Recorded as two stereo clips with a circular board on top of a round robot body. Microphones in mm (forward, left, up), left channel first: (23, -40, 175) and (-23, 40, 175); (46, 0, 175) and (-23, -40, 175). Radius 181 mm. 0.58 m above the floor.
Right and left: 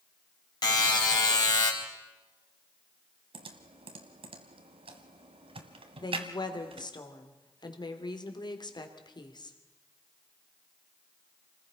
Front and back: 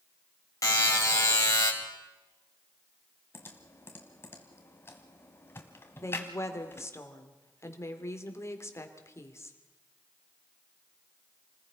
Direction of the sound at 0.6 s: 15° right.